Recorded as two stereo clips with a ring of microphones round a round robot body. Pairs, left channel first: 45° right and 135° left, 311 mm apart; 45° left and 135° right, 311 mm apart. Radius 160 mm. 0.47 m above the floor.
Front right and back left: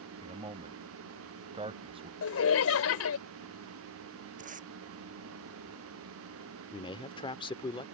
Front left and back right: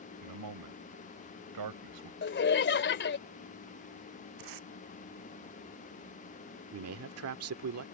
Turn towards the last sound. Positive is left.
turn(degrees=-115)